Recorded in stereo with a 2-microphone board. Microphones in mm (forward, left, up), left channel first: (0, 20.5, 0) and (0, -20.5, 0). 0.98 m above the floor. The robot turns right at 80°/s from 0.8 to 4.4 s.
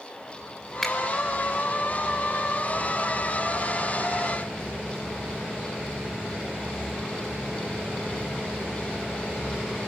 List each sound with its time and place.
0.8 s a finger snap: 10° left (ahead or behind), 2 m; by 0.9 s 20° left (ahead or behind), 2 m